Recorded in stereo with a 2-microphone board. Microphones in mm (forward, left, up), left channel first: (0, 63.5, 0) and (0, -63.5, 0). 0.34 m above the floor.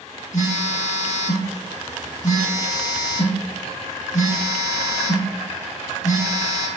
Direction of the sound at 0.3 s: 70° left (ahead or behind).